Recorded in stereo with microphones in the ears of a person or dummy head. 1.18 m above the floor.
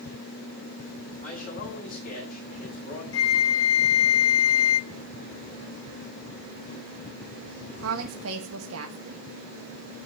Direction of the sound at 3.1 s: 80° left.